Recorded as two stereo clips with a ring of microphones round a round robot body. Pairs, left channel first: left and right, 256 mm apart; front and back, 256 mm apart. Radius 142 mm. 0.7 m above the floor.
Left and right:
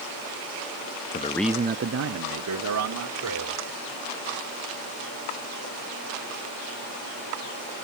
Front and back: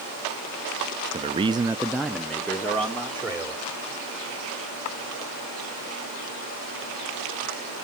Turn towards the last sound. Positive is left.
turn(degrees=-80)